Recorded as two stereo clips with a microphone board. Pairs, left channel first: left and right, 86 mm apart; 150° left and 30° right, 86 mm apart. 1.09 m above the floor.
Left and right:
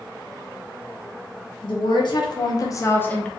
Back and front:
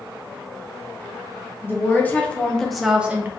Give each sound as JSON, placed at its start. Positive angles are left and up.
{"t": 1.6, "sound": "a woman speaking", "azimuth_deg": 85, "distance_m": 1.1}